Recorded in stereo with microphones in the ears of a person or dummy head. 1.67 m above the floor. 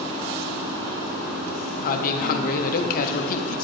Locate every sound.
1.8 s a man speaking: 50° left (ahead or behind), 0.6 m